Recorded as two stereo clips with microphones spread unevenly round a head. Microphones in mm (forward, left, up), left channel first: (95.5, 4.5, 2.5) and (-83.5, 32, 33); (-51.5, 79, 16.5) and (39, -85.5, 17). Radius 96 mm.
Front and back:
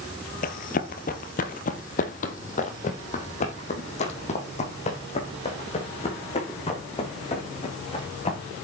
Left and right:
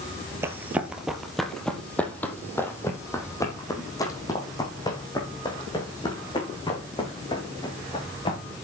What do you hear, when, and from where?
0.4 s running footsteps: 10° left, 1.4 m; by 8.4 s 55° left, 6 m